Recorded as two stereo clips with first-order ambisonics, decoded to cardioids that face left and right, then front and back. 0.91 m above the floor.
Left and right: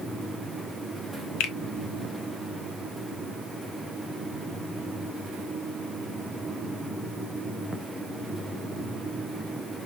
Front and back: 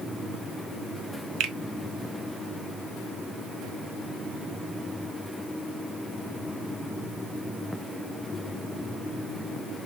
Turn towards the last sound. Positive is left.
turn(degrees=130)